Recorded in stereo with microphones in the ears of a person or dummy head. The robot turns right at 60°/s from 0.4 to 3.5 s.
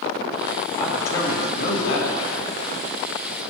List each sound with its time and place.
0.8 s a man speaking: straight ahead, 2 m; by 2.5 s 105° left, 2 m